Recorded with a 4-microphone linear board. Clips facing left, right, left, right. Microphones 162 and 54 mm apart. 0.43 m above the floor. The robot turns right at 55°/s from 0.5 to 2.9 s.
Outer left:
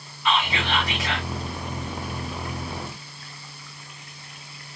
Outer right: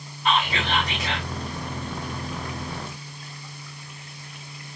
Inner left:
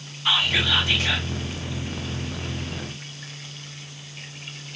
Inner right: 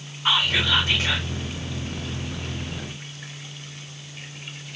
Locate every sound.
0.2 s whispering: 95° right, 1.6 m; by 1.3 s 55° right, 1.6 m